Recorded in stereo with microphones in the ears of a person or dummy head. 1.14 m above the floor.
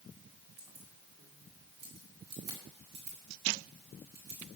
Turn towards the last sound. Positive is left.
turn(degrees=-50)  # may be behind; listen again after turning